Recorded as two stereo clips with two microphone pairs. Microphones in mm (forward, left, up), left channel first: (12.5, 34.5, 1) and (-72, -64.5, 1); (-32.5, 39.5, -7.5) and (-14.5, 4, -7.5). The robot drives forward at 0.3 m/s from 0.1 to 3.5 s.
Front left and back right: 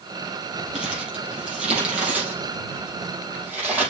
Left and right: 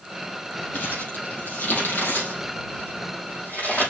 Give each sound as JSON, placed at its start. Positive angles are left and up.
{"t": 0.7, "sound": "crumpling", "azimuth_deg": 145, "distance_m": 4.5}